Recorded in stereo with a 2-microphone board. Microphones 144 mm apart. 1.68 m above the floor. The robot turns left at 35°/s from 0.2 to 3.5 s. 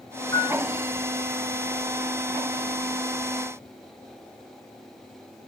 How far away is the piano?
About 1.1 m.